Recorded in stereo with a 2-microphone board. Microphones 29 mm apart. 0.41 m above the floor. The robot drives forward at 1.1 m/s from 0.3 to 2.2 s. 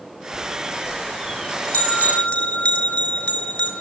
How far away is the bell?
About 6.5 m.